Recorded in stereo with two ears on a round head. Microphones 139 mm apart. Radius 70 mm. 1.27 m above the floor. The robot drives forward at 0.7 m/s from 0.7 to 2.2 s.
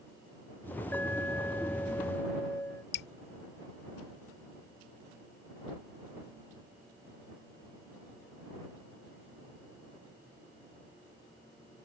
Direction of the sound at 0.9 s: 10° left (ahead or behind).